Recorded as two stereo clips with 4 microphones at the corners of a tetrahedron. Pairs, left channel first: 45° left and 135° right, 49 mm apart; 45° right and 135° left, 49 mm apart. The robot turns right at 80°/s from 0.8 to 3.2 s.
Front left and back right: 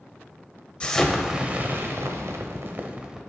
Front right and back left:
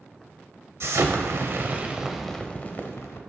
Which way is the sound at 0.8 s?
110° left.